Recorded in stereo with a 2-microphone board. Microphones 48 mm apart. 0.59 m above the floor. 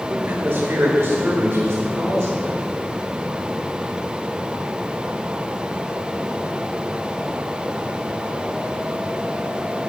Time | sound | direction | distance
0.1 | a man speaking | 50° right (ahead or behind) | 1.5 m